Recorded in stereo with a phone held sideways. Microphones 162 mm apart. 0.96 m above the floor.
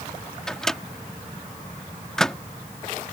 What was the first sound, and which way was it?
A microwave, 5° left (ahead or behind).